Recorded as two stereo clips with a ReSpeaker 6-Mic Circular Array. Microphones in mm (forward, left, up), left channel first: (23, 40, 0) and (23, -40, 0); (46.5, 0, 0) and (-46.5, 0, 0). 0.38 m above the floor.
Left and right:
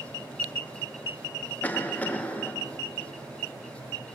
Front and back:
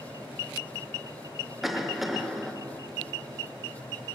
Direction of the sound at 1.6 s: 95° left.